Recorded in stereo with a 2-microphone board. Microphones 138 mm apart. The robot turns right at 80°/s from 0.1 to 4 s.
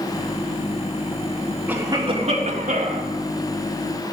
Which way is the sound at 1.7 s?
170° right.